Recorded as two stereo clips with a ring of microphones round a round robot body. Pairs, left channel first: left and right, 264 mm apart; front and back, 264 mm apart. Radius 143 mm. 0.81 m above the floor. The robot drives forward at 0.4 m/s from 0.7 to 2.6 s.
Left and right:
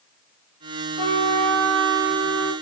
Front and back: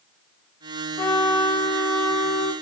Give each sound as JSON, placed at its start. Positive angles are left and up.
{"t": 1.0, "sound": "a trumpet", "azimuth_deg": -65, "distance_m": 1.9}